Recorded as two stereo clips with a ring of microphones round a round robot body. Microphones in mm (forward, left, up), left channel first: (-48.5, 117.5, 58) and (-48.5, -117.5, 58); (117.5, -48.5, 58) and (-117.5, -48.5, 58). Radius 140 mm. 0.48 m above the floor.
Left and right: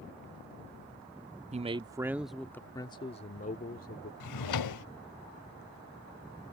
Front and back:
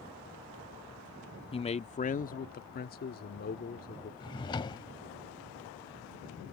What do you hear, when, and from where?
1.5 s a man speaking: 50° right; by 4.1 s 45° left
4.2 s a drawer: 75° left